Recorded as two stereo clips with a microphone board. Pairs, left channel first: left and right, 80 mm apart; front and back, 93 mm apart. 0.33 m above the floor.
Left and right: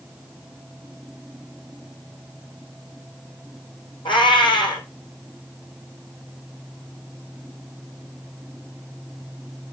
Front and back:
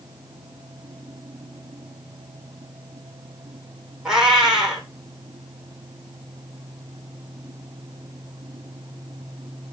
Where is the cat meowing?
95° left, 2.0 m.